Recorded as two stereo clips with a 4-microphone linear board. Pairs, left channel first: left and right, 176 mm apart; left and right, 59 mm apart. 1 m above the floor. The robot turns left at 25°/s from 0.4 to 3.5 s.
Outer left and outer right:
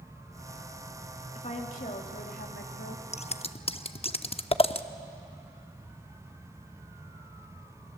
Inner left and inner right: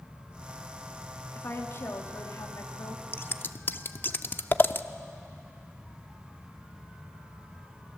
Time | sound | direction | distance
1.4 | a woman speaking | 140° left | 2.0 m
3.1 | scissors | 40° left (ahead or behind) | 0.6 m